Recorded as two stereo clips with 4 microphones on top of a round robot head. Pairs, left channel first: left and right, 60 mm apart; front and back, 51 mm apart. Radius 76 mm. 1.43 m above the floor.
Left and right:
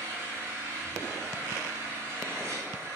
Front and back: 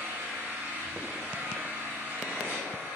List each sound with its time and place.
0.0 s an engine running: 130° right, 5.5 m